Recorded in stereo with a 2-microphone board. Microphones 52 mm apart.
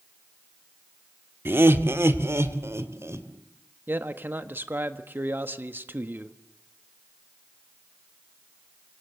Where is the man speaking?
40° right (ahead or behind), 1.4 m.